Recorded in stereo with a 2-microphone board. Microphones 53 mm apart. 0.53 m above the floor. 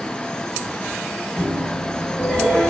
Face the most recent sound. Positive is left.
turn(degrees=20)  # may be behind; listen again after turning